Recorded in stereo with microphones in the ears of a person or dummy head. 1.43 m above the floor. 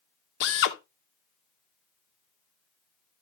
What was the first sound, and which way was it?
A drill, 60° left (ahead or behind).